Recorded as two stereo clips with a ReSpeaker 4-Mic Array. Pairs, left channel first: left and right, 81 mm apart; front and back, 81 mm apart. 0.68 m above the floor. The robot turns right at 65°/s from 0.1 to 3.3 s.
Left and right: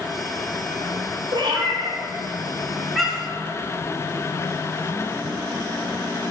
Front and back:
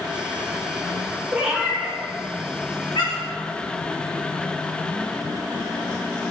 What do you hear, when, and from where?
1.3 s a cat meowing: 110° right, 1.2 m; by 3.4 s 20° left, 1.2 m